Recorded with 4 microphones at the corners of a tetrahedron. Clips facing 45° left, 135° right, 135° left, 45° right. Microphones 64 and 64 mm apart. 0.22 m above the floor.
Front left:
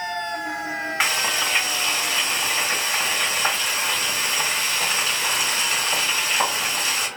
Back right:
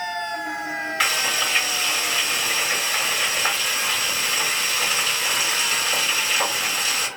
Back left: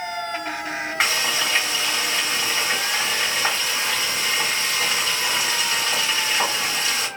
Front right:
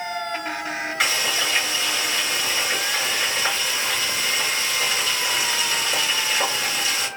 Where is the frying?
95° left, 1.9 m.